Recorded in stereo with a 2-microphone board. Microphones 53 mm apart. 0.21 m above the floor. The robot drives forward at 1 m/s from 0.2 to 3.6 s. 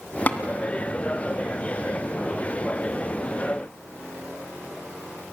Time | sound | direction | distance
0.3 | tapping | 30° left (ahead or behind) | 1.6 m